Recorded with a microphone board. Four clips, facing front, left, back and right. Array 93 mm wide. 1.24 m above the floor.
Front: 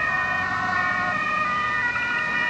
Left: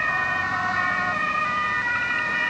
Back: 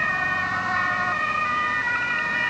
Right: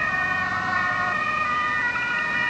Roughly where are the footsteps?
I don't hear footsteps.